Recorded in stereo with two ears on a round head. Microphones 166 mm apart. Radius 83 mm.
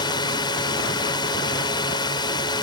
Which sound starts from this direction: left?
A drone, at 0.0 s.